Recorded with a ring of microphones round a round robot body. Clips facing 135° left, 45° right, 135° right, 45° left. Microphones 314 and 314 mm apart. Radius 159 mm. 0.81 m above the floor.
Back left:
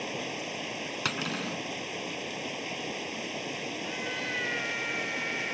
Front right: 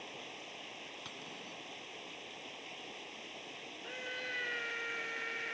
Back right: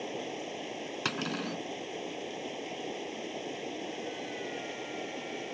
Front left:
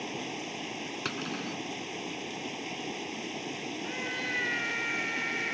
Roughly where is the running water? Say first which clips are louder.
Back left 15 dB, even; left.